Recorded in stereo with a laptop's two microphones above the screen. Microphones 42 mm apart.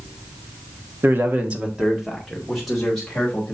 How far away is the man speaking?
About 1.1 m.